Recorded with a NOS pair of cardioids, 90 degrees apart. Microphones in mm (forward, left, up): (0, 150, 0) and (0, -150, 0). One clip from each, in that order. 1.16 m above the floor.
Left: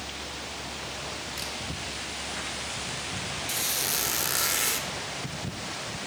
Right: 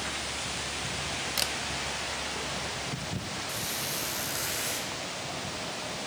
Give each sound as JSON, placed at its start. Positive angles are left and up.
{"t": 1.4, "sound": "a camera shutter", "azimuth_deg": -55, "distance_m": 1.1}
{"t": 3.5, "sound": "a squeak", "azimuth_deg": 65, "distance_m": 1.7}